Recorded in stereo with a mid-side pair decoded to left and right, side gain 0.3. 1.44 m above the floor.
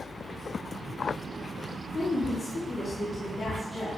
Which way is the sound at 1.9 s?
45° left.